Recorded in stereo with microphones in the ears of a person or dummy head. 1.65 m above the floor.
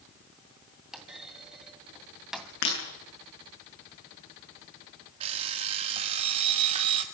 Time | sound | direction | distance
0.9 | a clunk | 10° right (ahead or behind) | 2.5 m
2.6 | breaking glass | 50° left (ahead or behind) | 9.5 m
5.2 | an alarm clock | 40° right (ahead or behind) | 2 m